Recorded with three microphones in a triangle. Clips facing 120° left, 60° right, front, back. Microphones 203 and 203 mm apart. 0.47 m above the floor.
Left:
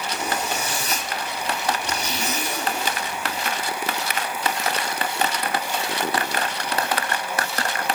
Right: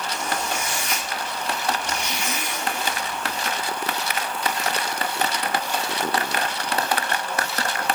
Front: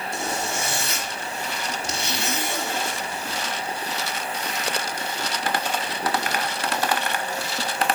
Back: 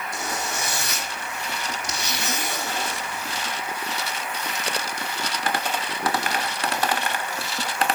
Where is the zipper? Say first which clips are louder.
Left 2 dB, front 3 dB; 65° left, 4 m.